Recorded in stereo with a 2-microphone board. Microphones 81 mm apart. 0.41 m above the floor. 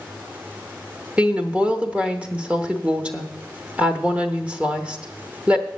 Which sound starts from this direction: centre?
A woman speaking, at 1.2 s.